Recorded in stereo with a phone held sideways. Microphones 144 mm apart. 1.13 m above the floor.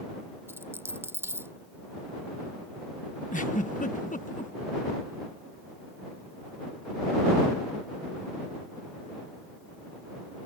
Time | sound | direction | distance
0.5 | a dropped coin | 15° right (ahead or behind) | ?
3.3 | a giggle | 65° left (ahead or behind) | ?